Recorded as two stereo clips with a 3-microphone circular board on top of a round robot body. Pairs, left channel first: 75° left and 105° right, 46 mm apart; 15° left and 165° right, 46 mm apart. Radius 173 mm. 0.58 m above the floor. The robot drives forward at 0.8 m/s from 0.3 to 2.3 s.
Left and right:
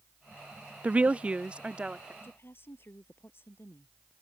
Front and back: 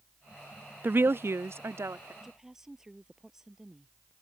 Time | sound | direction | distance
0.8 | a woman speaking | 155° right | ?
2.2 | a woman speaking | 115° left | ?